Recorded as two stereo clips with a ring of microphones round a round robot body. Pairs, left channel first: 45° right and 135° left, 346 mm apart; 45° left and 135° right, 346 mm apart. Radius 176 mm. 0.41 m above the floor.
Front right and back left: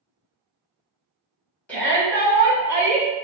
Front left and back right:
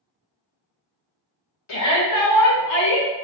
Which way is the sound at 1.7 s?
40° left.